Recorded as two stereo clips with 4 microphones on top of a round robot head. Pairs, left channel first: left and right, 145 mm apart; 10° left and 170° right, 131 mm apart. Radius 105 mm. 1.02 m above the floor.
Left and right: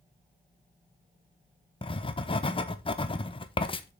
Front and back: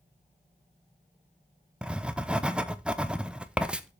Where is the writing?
110° left, 0.9 m.